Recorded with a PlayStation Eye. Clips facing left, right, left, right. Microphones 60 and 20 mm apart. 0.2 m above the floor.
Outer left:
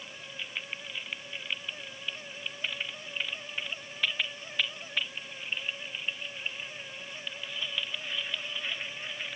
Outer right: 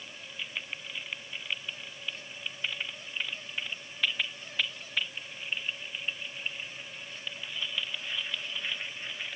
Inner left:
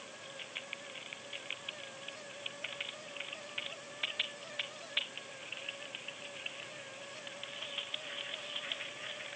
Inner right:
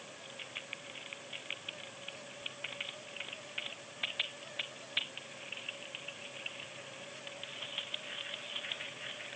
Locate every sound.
Only background noise.